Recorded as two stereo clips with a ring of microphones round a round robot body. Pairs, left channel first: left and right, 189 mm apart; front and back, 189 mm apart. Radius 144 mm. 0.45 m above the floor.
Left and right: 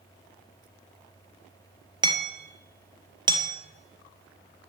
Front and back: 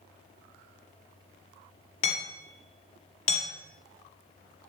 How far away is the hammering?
About 4 m.